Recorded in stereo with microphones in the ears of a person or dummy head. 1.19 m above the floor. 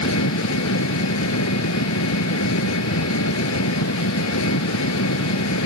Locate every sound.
0.0 s an engine running: 75° left (ahead or behind)